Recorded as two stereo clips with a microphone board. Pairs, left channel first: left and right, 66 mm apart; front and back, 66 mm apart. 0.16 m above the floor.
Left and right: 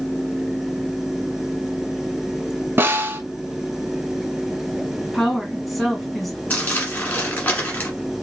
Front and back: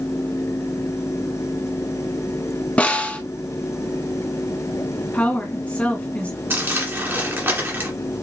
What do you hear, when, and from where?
2.8 s a snare drum: 60° right, 0.6 m
5.1 s a woman speaking: straight ahead, 1.2 m
6.5 s crumpling: 145° left, 1.7 m